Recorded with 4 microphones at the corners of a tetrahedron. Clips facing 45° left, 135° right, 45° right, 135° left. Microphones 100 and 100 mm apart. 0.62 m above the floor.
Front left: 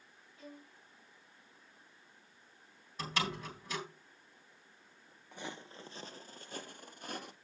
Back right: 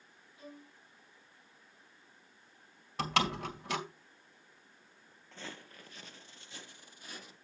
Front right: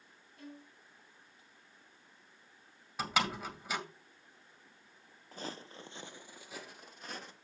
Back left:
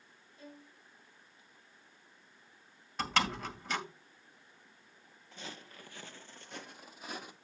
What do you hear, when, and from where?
0.4 s a violin: 65° right, 6 m
3.0 s a door slam: 125° right, 2 m
5.3 s footsteps: 25° right, 0.7 m; by 7.3 s 60° left, 1.2 m